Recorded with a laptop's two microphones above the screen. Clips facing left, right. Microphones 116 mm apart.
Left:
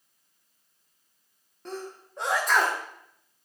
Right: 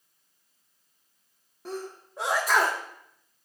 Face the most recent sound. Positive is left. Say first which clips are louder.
# right 1 dB
turn(degrees=-5)  # may be behind; listen again after turning